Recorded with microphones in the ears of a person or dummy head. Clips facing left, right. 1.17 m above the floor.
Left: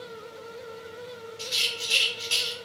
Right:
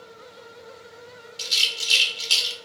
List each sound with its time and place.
1.4 s a rattle: 45° right (ahead or behind), 0.9 m